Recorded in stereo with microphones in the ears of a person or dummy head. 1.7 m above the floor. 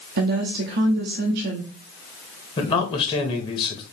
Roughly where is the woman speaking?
Right.